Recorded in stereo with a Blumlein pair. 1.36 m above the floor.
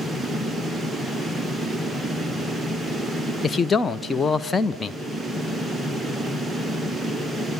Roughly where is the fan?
Ahead.